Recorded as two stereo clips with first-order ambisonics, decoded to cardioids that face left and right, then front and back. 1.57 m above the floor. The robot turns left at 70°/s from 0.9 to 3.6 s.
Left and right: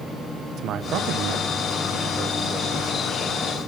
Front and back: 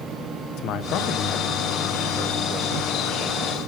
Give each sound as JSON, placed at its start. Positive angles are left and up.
{"t": 0.6, "sound": "a man speaking", "azimuth_deg": -40, "distance_m": 1.2}